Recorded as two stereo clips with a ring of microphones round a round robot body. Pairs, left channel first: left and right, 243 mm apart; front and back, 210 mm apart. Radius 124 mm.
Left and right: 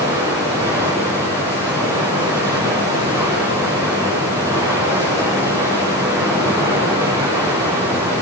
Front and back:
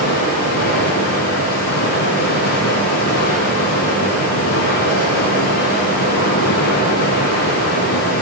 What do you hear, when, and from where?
0.0 s running water: 15° right, 8.5 m